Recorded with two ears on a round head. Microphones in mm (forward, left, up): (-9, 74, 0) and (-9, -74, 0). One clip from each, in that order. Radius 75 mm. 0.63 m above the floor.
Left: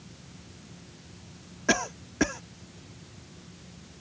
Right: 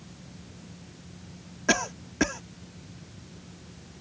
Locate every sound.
1.7 s a cough: 10° right (ahead or behind)